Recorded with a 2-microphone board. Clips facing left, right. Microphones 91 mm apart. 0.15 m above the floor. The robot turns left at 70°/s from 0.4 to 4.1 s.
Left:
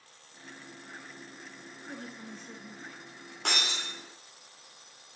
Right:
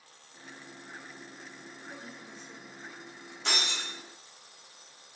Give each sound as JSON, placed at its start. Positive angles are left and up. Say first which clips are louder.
{"t": 1.9, "sound": "a woman speaking", "louder": "left 5 dB", "azimuth_deg": 120, "distance_m": 2.0}
{"t": 3.5, "sound": "breaking glass", "louder": "even", "side_deg": 60, "distance_m": 4.5}